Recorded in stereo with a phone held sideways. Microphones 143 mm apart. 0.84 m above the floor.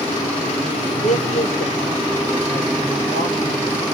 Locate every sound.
1.0 s a man speaking: 60° left (ahead or behind), 2 m; by 3.8 s 80° left, 3.5 m